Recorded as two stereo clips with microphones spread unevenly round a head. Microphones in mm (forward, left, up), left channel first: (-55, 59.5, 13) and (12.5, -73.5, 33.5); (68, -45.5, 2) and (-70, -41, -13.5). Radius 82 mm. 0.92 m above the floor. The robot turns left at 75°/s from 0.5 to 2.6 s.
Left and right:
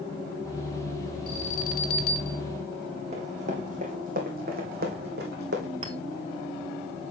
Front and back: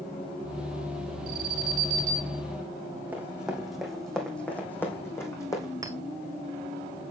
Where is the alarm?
170° left, 4 m; by 2.4 s 90° left, 4 m.